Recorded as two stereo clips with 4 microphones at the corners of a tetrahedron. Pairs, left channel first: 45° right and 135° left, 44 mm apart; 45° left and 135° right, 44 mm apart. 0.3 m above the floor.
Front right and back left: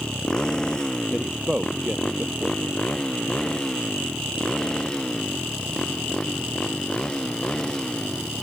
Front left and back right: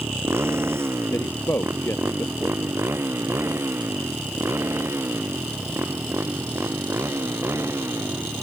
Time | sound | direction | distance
0.0 | a motorcycle | 120° right | ?
1.1 | a man speaking | 60° left | ?